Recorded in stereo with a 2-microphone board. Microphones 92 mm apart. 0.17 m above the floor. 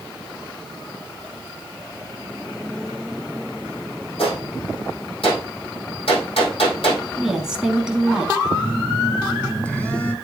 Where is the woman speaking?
5° right (ahead or behind), 1.1 m.